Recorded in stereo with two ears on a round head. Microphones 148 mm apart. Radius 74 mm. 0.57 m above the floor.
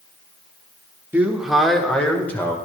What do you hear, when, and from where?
1.1 s a man speaking: 10° right (ahead or behind), 1.4 m; by 2.6 s 15° left (ahead or behind), 2.5 m